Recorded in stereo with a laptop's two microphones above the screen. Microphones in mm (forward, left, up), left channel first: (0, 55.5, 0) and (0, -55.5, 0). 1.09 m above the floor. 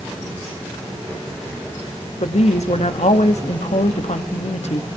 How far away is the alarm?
I don't hear an alarm.